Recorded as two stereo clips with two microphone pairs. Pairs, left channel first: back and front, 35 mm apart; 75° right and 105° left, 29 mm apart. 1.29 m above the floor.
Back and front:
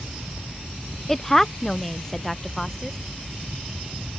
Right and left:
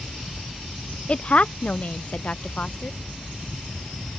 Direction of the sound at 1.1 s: 105° right.